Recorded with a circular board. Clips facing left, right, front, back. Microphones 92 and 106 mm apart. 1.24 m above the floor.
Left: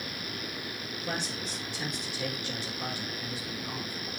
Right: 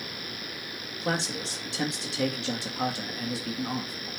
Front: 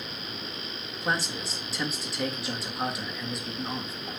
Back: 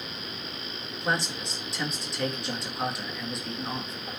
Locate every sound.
1.0 s a man speaking: 90° right, 1.7 m